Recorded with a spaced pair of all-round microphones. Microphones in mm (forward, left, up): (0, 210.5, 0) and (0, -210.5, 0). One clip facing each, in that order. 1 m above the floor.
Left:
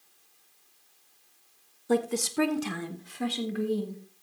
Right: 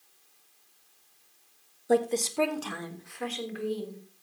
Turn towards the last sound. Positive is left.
turn(degrees=65)  # may be behind; listen again after turning